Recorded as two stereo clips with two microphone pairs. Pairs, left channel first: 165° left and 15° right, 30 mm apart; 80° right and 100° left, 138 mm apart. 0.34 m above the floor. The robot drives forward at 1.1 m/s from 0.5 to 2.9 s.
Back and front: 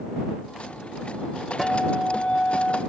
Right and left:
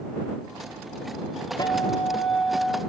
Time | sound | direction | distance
1.6 | a guitar | 100° right | 1.5 m